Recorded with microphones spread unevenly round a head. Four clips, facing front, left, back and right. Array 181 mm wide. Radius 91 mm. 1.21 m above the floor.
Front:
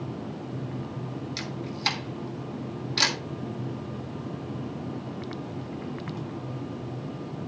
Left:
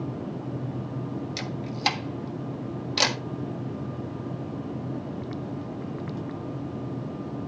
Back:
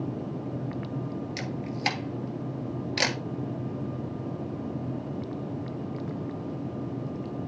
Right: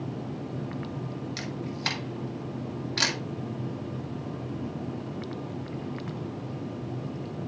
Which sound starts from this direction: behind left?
A camera shutter, at 1.4 s.